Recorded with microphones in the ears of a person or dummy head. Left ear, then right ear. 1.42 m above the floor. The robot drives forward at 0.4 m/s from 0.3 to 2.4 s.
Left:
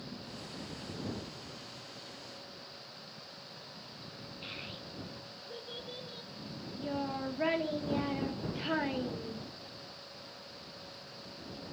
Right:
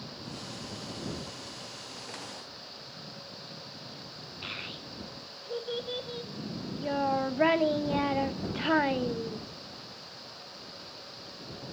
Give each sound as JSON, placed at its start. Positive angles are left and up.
{"t": 4.4, "sound": "a child speaking", "side_deg": -25, "distance_m": 0.7}